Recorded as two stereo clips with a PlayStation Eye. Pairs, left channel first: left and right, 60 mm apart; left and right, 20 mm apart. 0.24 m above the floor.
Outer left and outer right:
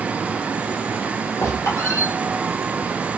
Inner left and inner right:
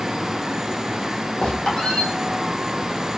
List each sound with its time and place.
1.4 s a squeak: 55° left (ahead or behind), 1.8 m